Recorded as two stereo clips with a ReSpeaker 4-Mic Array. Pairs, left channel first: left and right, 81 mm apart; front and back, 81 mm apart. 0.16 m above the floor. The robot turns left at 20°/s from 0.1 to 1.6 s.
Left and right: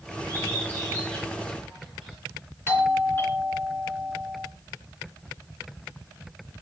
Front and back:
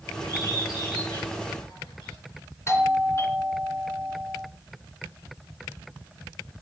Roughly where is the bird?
Ahead left.